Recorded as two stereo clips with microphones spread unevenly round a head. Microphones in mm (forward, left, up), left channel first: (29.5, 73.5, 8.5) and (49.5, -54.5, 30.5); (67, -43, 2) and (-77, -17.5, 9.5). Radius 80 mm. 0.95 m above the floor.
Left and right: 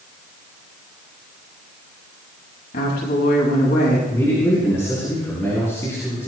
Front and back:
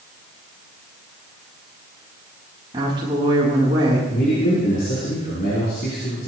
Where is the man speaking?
30° left, 9 m.